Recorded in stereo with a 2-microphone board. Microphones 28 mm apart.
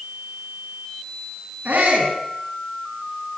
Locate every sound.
1.6 s a shout: 75° right (ahead or behind), 8.5 m